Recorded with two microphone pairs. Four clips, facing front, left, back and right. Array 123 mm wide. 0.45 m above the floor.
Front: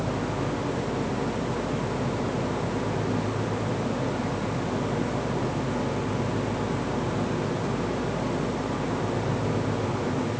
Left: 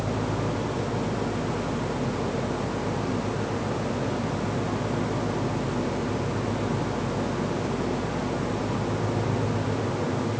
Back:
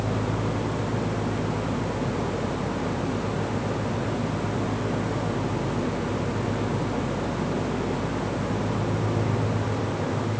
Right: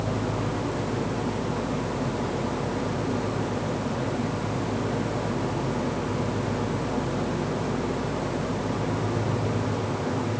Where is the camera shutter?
I don't hear a camera shutter.